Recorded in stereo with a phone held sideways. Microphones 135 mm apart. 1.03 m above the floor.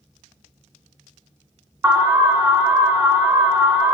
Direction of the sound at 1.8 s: 15° right (ahead or behind).